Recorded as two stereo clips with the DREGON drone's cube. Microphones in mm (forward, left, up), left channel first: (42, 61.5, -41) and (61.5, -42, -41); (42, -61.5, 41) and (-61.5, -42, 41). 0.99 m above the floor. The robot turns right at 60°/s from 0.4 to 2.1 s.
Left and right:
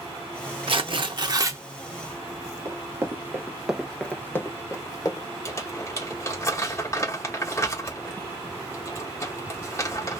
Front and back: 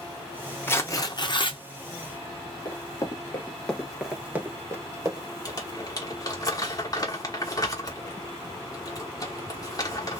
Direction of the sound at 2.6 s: 40° right.